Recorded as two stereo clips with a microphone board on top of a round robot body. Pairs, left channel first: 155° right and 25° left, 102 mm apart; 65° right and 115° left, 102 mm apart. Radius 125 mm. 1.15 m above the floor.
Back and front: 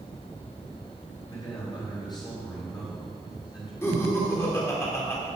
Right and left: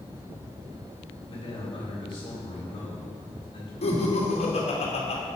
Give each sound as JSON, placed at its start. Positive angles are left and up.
{"t": 1.3, "sound": "a man speaking", "azimuth_deg": -110, "distance_m": 3.5}
{"t": 3.8, "sound": "laughter", "azimuth_deg": -90, "distance_m": 2.5}